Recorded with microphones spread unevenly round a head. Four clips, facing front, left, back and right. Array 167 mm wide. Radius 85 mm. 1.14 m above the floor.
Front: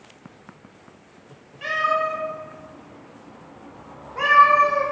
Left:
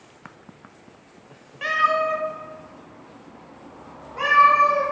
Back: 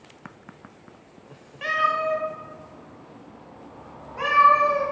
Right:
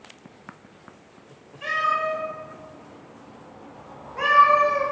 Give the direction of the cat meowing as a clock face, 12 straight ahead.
9 o'clock.